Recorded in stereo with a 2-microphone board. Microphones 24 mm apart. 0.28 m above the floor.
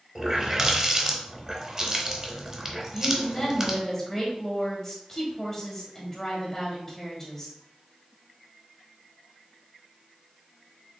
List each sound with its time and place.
0.1 s a running tap: 20° right (ahead or behind), 0.8 m
2.9 s a woman speaking: 20° left (ahead or behind), 1.6 m